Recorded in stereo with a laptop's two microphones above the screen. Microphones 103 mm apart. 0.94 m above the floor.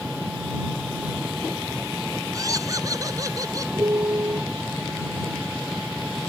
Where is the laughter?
35° right (ahead or behind).